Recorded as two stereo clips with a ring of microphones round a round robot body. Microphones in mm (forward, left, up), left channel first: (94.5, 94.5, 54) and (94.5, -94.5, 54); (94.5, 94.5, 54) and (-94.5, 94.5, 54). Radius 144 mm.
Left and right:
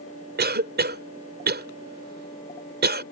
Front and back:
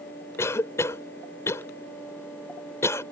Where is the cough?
75° right.